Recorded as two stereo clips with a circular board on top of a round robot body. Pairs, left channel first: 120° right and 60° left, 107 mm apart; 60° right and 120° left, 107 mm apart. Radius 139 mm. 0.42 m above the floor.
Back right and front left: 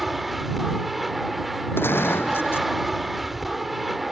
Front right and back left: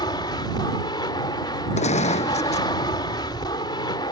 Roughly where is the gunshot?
Ahead right.